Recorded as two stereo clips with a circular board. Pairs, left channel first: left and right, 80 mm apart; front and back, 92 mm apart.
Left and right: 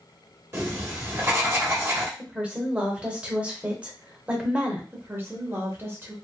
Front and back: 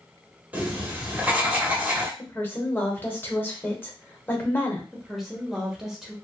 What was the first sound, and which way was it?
Writing, 120° right.